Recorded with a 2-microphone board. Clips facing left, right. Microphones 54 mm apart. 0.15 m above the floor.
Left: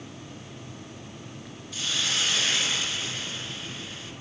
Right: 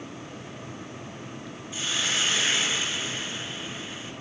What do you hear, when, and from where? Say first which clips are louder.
1.7 s a hiss: right 1 dB; 20° right (ahead or behind), 1.2 m